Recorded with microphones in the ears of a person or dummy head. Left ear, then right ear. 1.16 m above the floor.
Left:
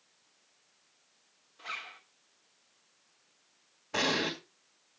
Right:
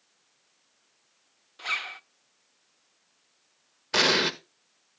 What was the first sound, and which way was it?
A zipper, 35° right (ahead or behind).